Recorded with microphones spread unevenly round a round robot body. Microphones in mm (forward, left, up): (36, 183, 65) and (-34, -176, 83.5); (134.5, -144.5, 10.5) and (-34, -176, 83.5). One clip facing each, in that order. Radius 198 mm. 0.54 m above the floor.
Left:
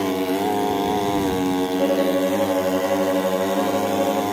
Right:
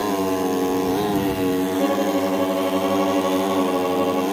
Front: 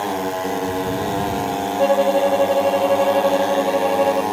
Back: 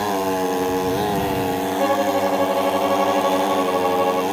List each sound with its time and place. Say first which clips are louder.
1.8 s a violin: left 1 dB, front 5 dB; 40° right